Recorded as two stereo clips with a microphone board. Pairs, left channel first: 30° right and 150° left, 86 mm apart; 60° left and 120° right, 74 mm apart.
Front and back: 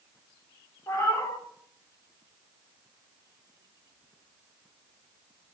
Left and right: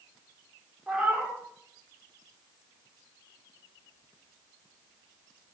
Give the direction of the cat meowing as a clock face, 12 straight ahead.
2 o'clock.